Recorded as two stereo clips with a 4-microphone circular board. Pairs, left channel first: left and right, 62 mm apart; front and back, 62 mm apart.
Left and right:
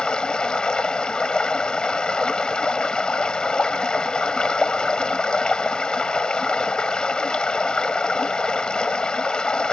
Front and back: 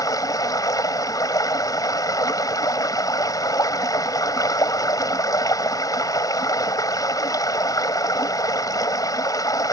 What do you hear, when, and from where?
0.0 s running water: 15° left